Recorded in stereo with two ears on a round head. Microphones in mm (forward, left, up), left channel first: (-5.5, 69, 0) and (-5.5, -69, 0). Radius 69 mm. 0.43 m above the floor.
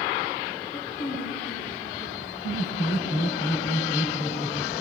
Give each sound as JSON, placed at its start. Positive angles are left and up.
{"t": 0.7, "sound": "a woman speaking", "side_deg": 50, "distance_m": 8.5}
{"t": 2.4, "sound": "laughter", "side_deg": 75, "distance_m": 2.5}